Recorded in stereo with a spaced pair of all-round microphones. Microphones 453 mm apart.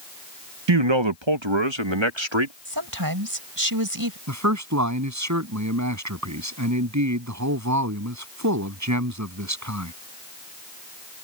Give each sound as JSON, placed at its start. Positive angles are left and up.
{"t": 0.7, "sound": "a man speaking", "side_deg": -70}
{"t": 2.6, "sound": "a woman speaking", "side_deg": -50}
{"t": 4.3, "sound": "a man speaking", "side_deg": -40}